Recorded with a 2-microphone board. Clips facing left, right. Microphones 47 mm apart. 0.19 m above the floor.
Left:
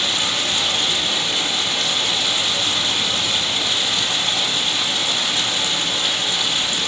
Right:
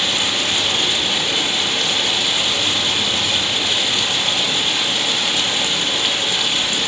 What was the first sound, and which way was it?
Running water, 35° right (ahead or behind).